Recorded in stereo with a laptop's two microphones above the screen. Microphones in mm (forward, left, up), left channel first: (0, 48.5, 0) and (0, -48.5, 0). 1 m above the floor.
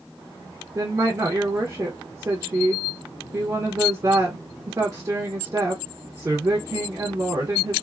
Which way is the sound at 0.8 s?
35° right (ahead or behind).